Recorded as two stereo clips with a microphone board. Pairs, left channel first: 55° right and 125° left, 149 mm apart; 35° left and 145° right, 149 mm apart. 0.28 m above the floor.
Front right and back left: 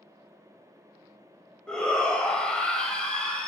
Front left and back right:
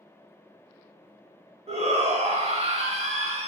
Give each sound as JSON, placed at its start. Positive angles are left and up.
{"t": 1.7, "sound": "a shout", "azimuth_deg": -140, "distance_m": 1.2}